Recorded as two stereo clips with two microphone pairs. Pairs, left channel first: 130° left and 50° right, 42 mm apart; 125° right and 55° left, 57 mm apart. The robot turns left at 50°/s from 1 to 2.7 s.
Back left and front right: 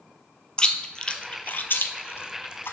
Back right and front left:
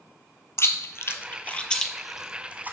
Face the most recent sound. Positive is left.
turn(degrees=115)